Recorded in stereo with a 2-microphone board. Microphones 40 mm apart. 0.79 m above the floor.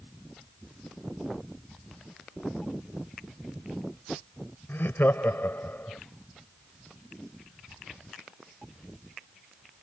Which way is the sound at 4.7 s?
65° left (ahead or behind).